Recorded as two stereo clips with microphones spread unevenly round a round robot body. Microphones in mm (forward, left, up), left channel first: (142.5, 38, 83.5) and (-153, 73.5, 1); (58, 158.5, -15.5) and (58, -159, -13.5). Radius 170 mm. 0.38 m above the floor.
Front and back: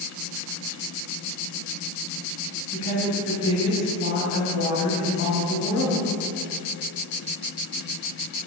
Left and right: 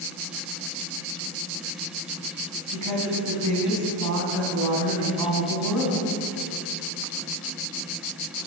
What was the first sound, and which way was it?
A woman speaking, 60° right.